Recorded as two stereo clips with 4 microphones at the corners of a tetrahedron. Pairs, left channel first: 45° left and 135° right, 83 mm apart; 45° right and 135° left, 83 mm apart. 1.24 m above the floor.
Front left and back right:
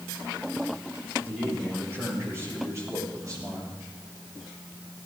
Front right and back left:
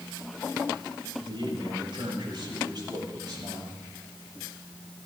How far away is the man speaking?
About 6 m.